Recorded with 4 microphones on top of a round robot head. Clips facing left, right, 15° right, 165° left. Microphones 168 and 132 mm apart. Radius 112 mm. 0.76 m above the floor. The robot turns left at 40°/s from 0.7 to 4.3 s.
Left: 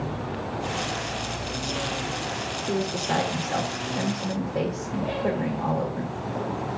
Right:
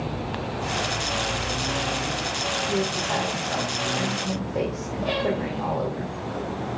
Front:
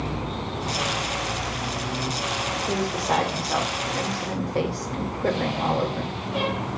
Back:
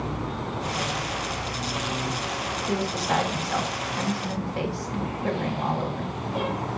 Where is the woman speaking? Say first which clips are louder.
Left 1 dB, front 1 dB; 65° left, 2.5 m; by 6.1 s straight ahead, 2.5 m.